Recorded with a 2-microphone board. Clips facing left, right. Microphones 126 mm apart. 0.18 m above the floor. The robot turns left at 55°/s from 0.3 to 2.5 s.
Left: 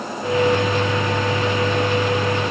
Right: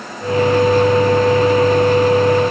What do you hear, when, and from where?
Only background noise.